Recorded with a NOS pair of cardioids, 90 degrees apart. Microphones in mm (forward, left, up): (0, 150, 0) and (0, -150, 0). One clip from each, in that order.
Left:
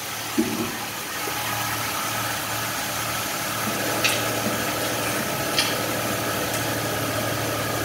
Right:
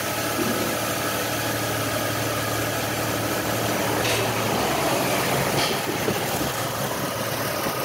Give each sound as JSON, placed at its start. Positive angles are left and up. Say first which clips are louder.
{"t": 0.4, "sound": "chewing", "louder": "right 2 dB", "azimuth_deg": 70, "distance_m": 5.0}